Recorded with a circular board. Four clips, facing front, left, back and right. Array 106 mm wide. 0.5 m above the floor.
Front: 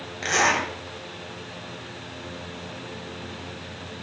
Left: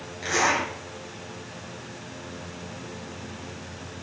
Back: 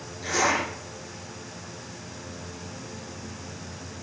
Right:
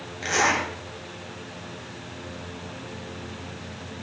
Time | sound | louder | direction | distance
0.2 | a zipper | right 1 dB, front 2 dB | 5° right | 1.8 m